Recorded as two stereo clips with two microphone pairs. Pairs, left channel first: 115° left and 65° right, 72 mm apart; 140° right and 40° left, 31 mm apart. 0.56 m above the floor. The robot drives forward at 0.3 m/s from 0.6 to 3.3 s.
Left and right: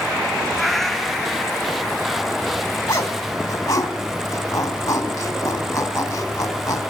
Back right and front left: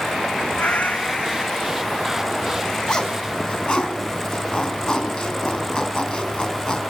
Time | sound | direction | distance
0.6 | a cat meowing | 155° right | 0.5 m
2.9 | a zipper | 165° left | 3.5 m